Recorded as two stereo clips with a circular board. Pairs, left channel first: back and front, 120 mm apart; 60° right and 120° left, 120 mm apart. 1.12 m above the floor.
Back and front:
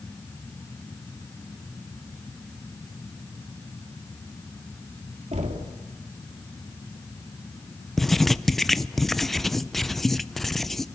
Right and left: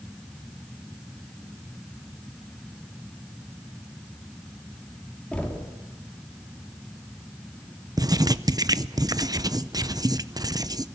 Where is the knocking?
20° left, 2.5 m.